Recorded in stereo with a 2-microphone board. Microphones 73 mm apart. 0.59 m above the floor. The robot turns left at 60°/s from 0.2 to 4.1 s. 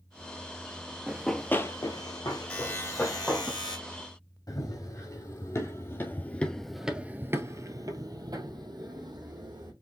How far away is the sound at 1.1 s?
About 0.7 m.